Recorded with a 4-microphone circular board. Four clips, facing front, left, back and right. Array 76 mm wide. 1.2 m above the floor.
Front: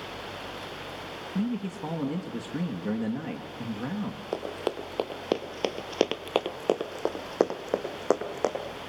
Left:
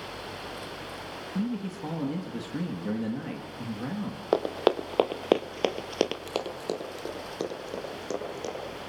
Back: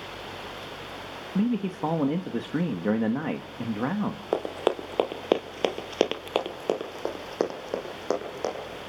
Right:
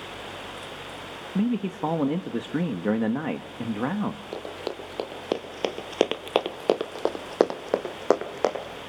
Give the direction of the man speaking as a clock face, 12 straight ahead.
4 o'clock.